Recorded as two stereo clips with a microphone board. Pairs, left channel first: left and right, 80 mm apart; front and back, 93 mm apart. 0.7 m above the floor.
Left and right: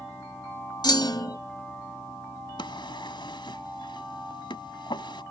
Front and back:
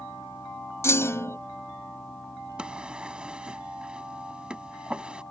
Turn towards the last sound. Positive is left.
turn(degrees=100)